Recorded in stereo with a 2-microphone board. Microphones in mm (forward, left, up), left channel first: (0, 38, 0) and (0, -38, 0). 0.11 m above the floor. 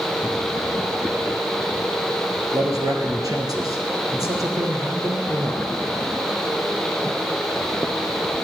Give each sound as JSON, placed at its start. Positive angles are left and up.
{"t": 2.5, "sound": "a man speaking", "side_deg": -50, "distance_m": 2.0}